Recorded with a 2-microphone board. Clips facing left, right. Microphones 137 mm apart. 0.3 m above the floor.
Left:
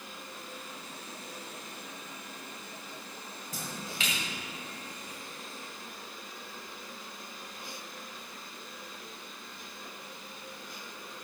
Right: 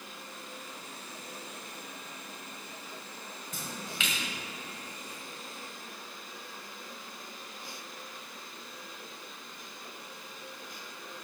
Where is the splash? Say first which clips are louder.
Left 1 dB; 40° left (ahead or behind), 1.8 m.